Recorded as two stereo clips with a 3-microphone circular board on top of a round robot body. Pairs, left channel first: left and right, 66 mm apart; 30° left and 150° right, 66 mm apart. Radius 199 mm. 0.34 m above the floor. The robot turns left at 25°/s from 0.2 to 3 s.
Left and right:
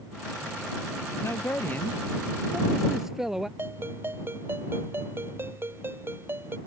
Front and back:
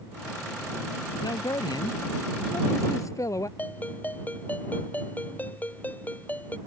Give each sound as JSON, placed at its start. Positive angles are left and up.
{"t": 1.2, "sound": "a man speaking", "azimuth_deg": 40}
{"t": 3.6, "sound": "a ringtone", "azimuth_deg": -35}